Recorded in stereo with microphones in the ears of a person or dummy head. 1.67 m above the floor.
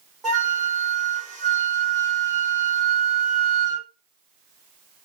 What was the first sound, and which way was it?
A flute, 5° right (ahead or behind).